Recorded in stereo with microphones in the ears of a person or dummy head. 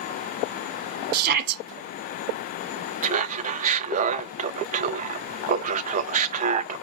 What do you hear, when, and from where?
1.1 s a shout: 50° right (ahead or behind), 1.2 m
3.0 s laughter: 45° right (ahead or behind), 0.8 m